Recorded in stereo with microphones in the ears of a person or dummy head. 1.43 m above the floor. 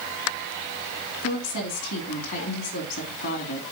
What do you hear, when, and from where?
1.2 s a woman speaking: 65° left (ahead or behind), 2.5 m